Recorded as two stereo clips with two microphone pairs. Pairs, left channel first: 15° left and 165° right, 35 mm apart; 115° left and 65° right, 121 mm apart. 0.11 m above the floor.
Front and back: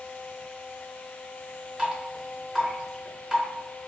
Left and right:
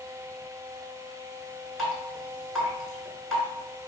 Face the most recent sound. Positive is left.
turn(degrees=-170)